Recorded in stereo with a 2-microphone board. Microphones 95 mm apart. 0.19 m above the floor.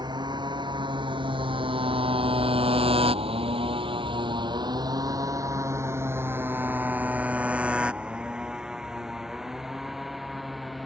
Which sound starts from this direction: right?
A motorcycle, at 0.0 s.